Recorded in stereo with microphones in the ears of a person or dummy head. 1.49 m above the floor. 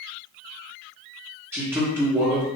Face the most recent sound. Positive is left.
turn(degrees=-10)  # may be behind; listen again after turning